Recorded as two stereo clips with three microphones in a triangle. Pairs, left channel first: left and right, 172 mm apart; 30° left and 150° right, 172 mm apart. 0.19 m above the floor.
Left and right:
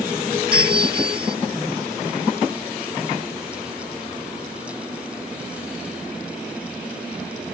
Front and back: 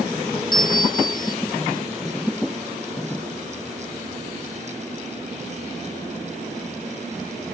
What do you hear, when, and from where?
0.5 s a bell: 35° right